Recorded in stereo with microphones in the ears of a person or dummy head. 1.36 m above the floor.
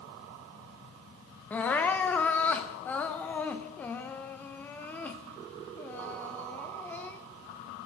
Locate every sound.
1.5 s crying: centre (ahead or behind), 0.5 m